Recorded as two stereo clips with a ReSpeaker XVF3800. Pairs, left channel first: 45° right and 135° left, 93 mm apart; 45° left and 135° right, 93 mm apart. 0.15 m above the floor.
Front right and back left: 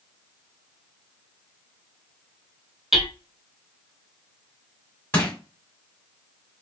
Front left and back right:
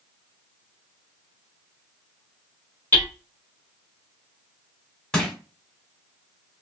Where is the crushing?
20° right, 1.5 m.